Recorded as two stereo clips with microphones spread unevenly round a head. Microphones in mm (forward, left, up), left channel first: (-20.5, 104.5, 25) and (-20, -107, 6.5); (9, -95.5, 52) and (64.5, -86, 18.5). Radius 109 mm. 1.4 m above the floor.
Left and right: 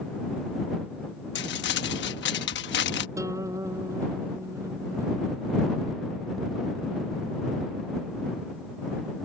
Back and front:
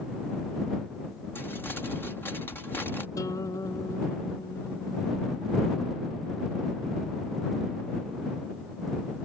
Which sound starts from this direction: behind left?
Crumpling, at 1.4 s.